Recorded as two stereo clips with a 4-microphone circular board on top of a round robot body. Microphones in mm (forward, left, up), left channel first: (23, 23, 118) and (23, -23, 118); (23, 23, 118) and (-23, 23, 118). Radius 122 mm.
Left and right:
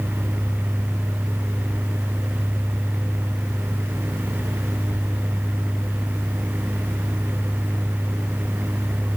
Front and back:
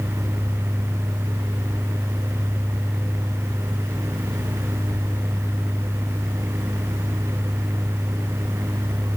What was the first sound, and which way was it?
Only background noise.